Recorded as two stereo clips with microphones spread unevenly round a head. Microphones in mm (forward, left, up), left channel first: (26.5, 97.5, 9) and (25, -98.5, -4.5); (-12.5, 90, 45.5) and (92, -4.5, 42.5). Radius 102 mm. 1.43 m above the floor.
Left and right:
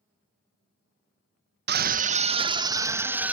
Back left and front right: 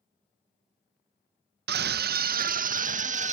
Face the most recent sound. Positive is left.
turn(degrees=-5)